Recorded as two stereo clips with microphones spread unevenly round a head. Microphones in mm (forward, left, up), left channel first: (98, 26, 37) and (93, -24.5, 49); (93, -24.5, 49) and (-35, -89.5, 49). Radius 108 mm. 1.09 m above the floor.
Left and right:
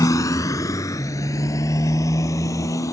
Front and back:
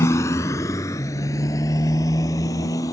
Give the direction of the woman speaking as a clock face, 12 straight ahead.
I don't hear a woman speaking.